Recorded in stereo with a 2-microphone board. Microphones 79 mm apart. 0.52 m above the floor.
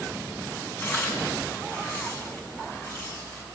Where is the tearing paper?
30° left (ahead or behind), 5 m.